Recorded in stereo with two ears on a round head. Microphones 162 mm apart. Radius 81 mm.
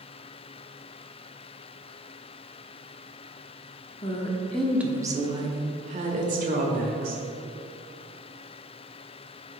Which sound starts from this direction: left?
A woman speaking, at 4.0 s.